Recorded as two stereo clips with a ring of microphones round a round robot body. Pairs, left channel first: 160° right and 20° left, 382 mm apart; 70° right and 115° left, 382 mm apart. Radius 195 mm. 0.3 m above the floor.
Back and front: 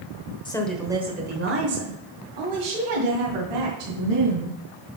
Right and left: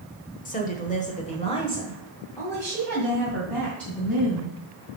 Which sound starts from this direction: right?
A woman speaking, at 0.5 s.